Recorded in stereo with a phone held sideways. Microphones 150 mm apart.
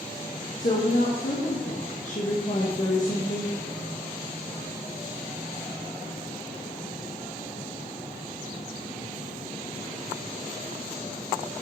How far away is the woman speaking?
About 1.6 m.